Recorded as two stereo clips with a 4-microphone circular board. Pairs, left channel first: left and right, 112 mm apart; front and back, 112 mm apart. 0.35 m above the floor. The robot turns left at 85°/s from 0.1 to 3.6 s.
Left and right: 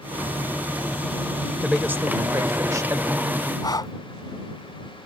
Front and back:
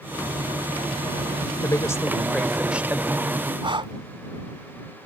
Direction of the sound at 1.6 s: 15° right.